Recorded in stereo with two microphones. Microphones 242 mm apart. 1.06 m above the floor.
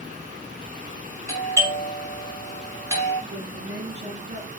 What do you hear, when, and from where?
1.3 s a doorbell: 10° right (ahead or behind), 4 m
3.3 s a woman speaking: 45° right (ahead or behind), 2.5 m